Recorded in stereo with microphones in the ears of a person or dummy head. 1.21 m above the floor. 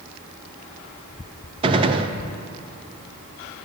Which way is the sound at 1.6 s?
25° right (ahead or behind).